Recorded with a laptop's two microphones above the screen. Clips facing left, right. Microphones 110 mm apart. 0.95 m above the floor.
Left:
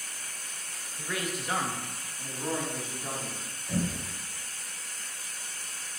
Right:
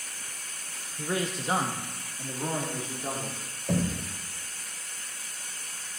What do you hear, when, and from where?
1.0 s a man speaking: 30° right (ahead or behind), 1.0 m; by 3.4 s 20° right (ahead or behind), 3 m
3.7 s knocking: 80° right, 2.5 m